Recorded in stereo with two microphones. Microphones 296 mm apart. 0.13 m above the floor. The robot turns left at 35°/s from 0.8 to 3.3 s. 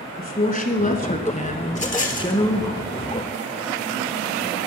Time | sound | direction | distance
0.2 | a woman speaking | 30° left (ahead or behind) | 1.1 m
1.7 | a rattle | 60° left (ahead or behind) | 1.1 m